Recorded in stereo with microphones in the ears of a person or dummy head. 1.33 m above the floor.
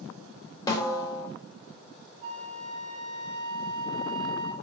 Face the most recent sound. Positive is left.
turn(degrees=-45)  # may be behind; listen again after turning